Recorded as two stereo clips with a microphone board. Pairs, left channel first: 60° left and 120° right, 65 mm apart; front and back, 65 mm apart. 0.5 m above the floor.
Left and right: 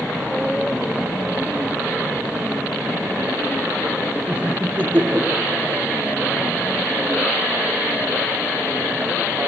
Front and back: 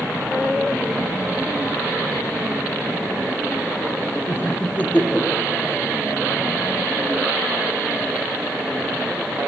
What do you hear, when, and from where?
4.3 s laughter: 45° right, 1.9 m; by 5.8 s 85° right, 2.5 m